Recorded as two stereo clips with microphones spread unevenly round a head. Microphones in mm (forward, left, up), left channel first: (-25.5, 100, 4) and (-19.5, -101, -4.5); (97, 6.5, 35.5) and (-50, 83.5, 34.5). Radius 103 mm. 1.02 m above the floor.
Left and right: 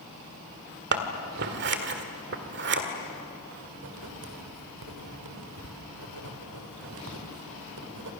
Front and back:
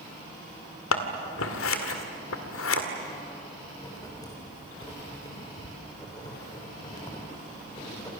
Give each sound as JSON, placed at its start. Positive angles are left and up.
{"t": 0.9, "sound": "scissors", "azimuth_deg": -45, "distance_m": 1.9}
{"t": 3.8, "sound": "writing", "azimuth_deg": -100, "distance_m": 3.5}